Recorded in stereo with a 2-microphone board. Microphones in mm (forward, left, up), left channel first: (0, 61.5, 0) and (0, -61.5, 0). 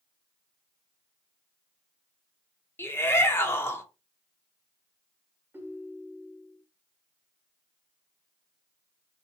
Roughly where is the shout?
Centre.